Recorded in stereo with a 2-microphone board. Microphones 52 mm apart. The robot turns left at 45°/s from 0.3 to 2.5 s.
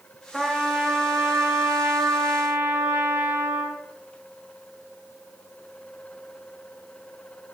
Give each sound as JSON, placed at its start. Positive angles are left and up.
{"t": 0.3, "sound": "a trumpet", "azimuth_deg": 0, "distance_m": 3.0}